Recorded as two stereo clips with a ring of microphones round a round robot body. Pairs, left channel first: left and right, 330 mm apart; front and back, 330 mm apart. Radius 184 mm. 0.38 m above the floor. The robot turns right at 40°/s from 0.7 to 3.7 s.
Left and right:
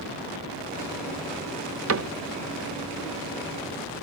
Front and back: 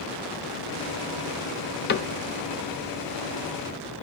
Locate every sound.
1.9 s a cupboard door: 55° right, 0.8 m; by 2.1 s 45° right, 0.8 m